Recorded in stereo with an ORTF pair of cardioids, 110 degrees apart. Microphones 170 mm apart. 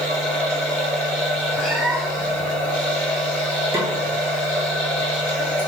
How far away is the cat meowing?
About 1.7 m.